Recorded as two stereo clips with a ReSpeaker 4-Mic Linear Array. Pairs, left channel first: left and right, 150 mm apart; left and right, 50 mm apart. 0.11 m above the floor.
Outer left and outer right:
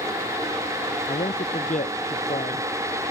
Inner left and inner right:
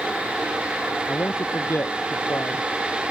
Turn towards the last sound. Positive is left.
turn(degrees=60)  # may be behind; listen again after turning